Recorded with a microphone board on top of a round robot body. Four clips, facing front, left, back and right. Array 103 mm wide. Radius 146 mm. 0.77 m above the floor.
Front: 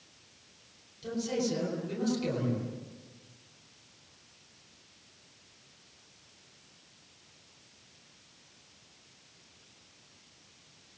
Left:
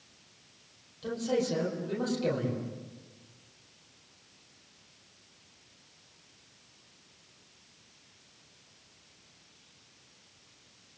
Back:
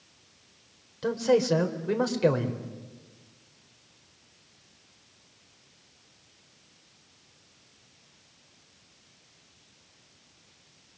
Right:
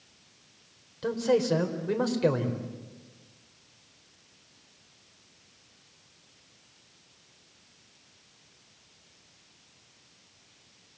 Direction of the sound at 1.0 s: 145° right.